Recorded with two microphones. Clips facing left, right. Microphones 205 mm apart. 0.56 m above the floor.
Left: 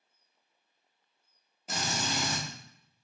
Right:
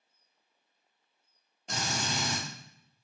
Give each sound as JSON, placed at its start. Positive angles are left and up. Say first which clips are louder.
{"t": 1.7, "sound": "a drill", "louder": "left 1 dB", "side_deg": 5, "distance_m": 1.0}